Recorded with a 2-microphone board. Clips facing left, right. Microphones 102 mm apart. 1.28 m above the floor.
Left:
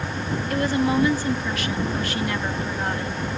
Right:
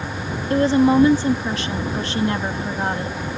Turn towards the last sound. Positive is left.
turn(degrees=-30)  # may be behind; listen again after turning